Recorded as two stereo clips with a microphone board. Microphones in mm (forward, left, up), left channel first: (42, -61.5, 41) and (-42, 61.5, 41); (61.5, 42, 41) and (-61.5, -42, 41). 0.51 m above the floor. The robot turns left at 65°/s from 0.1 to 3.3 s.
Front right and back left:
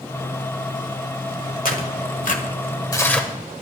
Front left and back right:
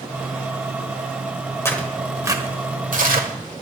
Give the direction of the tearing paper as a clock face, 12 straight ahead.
1 o'clock.